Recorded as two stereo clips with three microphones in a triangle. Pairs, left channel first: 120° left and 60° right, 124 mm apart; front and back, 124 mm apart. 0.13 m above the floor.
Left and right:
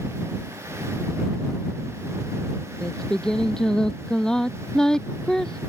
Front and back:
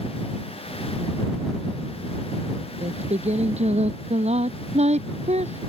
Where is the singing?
155° right.